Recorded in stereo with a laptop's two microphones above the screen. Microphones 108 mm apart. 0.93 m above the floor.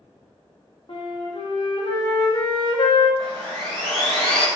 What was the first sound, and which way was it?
A flute, 50° left (ahead or behind).